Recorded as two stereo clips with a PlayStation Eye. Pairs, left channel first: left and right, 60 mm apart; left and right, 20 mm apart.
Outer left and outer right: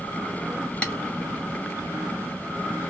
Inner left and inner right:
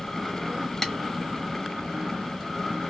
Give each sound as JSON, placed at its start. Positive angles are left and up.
{"t": 0.8, "sound": "tapping", "side_deg": 20, "distance_m": 1.0}